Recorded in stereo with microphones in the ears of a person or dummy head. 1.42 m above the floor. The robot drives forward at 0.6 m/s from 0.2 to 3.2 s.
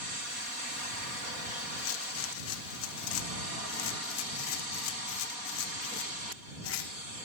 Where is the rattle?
80° left, 1.7 m; by 7.0 s 65° left (ahead or behind), 1.8 m.